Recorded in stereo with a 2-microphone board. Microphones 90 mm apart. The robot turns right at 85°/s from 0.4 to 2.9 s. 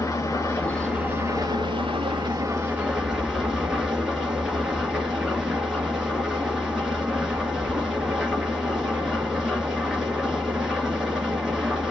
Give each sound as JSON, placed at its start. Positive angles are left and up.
{"t": 0.0, "sound": "an engine running", "azimuth_deg": 145, "distance_m": 3.0}